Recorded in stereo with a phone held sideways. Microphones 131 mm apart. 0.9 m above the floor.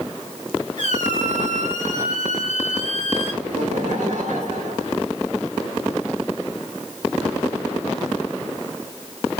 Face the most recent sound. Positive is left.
turn(degrees=-75)  # may be behind; listen again after turning